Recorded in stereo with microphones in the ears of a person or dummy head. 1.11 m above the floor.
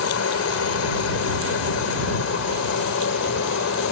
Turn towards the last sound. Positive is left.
turn(degrees=65)  # may be behind; listen again after turning